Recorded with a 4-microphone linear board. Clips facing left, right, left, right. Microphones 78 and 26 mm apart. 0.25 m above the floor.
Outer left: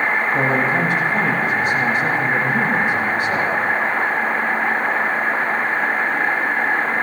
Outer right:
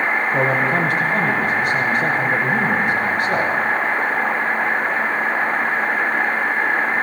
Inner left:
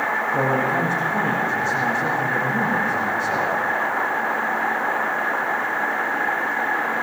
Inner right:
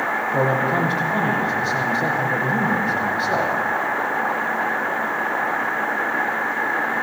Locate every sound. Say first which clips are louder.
0.3 s a man speaking: outer right 1 dB, inner right 2 dB; 55° right (ahead or behind), 9.5 m